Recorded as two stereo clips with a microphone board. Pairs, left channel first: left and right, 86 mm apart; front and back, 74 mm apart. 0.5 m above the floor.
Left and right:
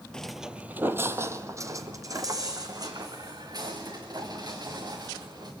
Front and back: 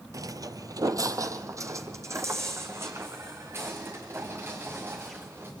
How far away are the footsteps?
About 0.7 m.